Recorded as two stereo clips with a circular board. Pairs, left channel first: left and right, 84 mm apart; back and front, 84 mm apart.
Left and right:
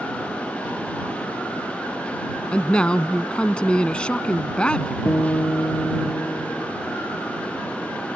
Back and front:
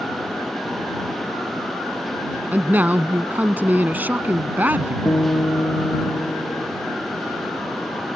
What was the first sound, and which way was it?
A man speaking, 30° left.